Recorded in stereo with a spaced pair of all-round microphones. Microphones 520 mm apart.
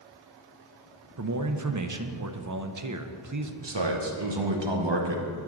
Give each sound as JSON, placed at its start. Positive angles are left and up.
{"t": 1.2, "sound": "a man speaking", "side_deg": -35, "distance_m": 0.6}
{"t": 3.6, "sound": "a man speaking", "side_deg": -55, "distance_m": 1.0}